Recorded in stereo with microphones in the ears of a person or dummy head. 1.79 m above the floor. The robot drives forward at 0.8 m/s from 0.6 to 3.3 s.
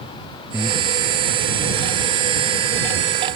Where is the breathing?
5° right (ahead or behind).